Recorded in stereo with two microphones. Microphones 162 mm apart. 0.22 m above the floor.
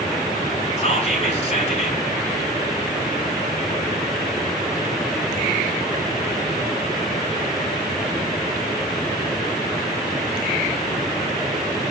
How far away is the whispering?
About 2.5 m.